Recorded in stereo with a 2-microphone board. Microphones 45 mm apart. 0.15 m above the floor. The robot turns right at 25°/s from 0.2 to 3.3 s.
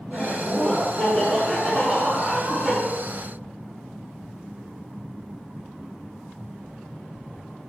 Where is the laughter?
135° left, 1.5 m; by 2.8 s 160° right, 1.5 m.